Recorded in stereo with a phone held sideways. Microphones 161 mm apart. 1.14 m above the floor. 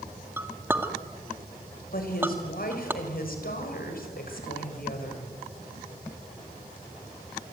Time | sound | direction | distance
0.4 | a clink | 15° right (ahead or behind) | 1.7 m
1.9 | a woman speaking | 65° left (ahead or behind) | 6.5 m